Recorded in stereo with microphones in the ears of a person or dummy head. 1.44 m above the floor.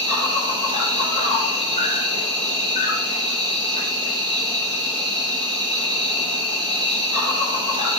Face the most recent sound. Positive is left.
turn(degrees=-20)  # may be behind; listen again after turning